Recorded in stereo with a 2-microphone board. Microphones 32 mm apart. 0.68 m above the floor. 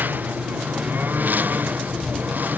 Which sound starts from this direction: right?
A lawn mower, at 0.0 s.